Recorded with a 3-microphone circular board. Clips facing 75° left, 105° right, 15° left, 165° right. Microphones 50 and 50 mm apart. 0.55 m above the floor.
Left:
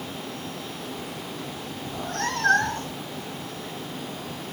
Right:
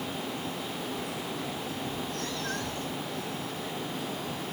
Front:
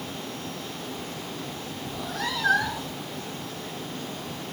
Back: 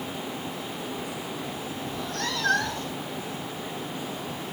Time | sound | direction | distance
1.9 | a cat meowing | 100° left | ?